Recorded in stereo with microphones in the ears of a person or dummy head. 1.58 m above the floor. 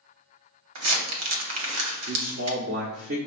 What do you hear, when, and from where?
0.8 s crumpling: 80° right, 1.0 m
2.1 s a man speaking: 50° right (ahead or behind), 0.6 m